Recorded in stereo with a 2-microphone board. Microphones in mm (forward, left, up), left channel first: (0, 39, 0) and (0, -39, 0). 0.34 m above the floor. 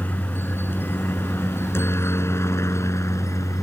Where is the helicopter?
25° left (ahead or behind); by 3.6 s 40° left (ahead or behind).